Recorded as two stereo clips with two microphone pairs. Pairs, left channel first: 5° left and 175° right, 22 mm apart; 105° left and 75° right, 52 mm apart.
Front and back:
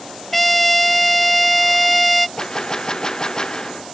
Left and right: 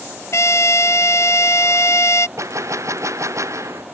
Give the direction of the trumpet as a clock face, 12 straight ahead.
9 o'clock.